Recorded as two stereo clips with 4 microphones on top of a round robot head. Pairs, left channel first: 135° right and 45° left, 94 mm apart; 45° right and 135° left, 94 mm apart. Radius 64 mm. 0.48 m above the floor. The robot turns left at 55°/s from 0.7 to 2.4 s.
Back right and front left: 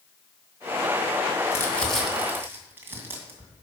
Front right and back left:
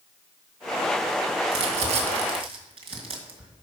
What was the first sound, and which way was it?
Crumpling, 160° left.